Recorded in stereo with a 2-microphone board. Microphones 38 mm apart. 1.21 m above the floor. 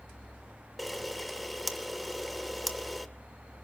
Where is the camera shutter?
Centre (ahead or behind), 1.3 m.